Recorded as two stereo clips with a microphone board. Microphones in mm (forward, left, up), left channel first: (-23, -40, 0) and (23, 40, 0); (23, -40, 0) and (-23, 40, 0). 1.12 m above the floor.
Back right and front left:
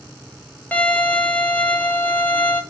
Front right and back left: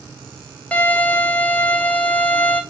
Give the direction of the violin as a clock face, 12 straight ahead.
3 o'clock.